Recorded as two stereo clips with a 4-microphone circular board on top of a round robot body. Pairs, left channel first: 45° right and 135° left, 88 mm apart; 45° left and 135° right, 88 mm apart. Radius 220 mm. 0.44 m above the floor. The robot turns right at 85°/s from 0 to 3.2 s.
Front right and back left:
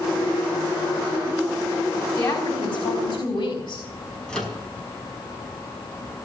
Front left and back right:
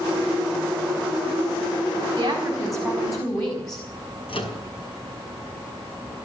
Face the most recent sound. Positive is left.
turn(degrees=35)